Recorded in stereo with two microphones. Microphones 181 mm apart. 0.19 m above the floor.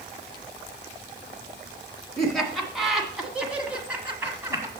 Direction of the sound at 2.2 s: Centre (ahead or behind).